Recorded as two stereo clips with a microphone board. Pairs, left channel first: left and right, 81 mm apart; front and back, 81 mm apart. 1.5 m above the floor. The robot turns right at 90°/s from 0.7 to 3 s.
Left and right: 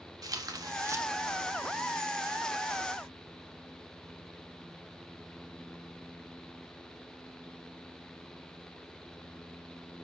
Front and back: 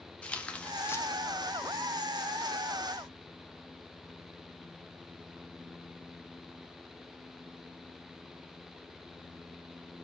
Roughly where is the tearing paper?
Right.